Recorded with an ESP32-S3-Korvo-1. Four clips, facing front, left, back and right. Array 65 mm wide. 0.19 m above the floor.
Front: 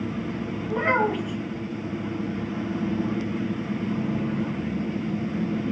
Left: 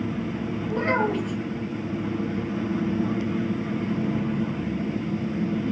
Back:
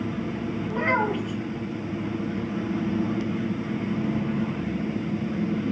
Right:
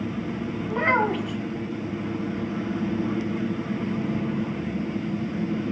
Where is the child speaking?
85° right, 0.8 m.